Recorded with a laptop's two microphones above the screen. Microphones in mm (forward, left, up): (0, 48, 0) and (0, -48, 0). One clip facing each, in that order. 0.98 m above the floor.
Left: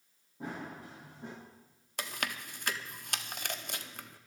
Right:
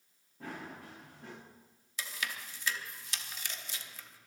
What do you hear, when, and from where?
0.4 s running footsteps: 20° left (ahead or behind), 7.5 m
2.0 s chewing: 55° left (ahead or behind), 0.8 m